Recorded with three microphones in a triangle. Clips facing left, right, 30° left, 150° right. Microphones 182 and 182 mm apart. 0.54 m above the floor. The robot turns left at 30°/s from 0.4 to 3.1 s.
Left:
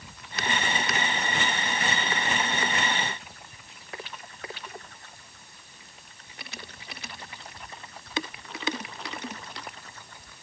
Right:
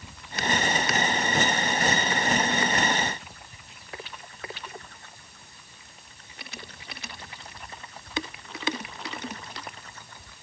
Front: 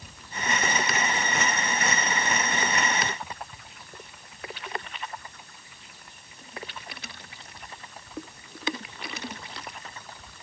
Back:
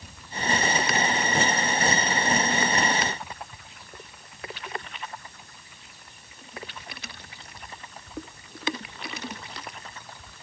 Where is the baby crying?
I don't hear a baby crying.